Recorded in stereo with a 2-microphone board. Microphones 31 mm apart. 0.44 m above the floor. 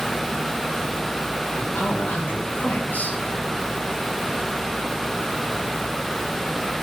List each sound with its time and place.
1.6 s a man speaking: 65° left (ahead or behind), 5 m